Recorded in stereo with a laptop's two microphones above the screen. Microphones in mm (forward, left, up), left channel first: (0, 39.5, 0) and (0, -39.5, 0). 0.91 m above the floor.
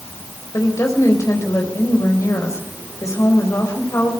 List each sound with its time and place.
0.5 s a woman speaking: 40° left (ahead or behind), 4 m